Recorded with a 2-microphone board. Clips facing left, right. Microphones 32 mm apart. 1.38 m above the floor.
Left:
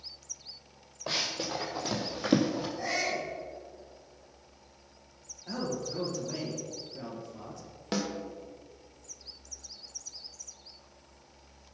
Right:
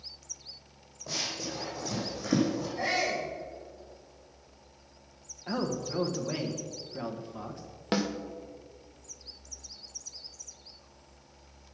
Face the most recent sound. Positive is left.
turn(degrees=-20)  # may be behind; listen again after turning